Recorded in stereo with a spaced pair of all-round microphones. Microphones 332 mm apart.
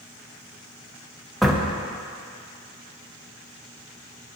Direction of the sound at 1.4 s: Centre (ahead or behind).